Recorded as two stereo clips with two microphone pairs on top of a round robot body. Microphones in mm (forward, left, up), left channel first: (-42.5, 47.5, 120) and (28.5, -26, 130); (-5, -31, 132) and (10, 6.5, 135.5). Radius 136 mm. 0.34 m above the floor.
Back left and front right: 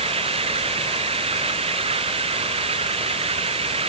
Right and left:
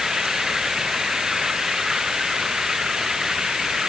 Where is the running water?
10° right.